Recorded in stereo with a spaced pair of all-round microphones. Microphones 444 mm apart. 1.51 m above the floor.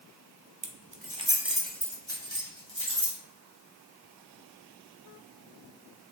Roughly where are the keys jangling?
Right.